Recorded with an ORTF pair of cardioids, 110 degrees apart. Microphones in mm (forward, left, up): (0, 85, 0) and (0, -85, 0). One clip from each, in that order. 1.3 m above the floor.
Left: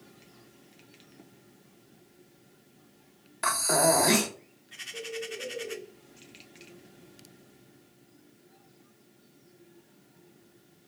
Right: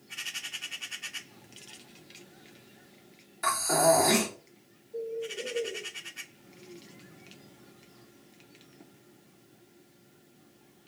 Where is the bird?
20° right, 0.9 m.